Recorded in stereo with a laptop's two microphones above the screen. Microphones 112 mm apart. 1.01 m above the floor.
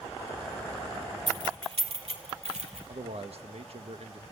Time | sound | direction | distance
1.3 | keys jangling | 40° right (ahead or behind) | 1.8 m
2.9 | a man speaking | 65° right (ahead or behind) | 0.9 m